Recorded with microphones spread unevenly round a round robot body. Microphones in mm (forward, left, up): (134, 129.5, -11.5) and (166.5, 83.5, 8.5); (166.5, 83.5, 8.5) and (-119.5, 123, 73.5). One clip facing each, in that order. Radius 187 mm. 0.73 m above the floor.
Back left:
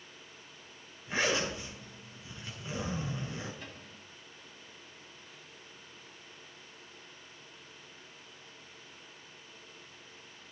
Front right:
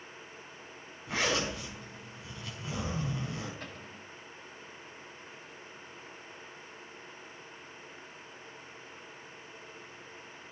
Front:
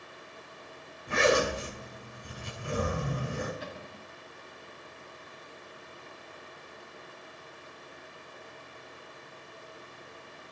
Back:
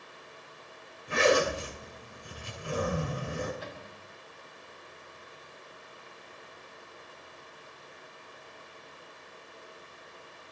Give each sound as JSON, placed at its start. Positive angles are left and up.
{"t": 1.1, "sound": "a zipper", "azimuth_deg": -55, "distance_m": 6.0}
{"t": 3.6, "sound": "a cupboard door", "azimuth_deg": -25, "distance_m": 4.0}